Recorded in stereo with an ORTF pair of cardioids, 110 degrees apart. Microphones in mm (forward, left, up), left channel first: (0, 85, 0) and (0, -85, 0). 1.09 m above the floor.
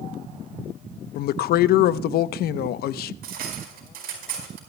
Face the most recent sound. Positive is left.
turn(degrees=-65)